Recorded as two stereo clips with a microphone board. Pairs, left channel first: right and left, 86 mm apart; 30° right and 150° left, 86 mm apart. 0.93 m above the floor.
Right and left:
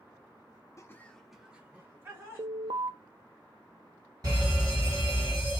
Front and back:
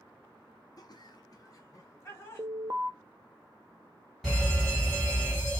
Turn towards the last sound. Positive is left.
turn(degrees=60)